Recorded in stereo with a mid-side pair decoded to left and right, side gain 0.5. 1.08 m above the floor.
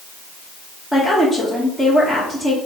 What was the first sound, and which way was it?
A woman speaking, 5° left.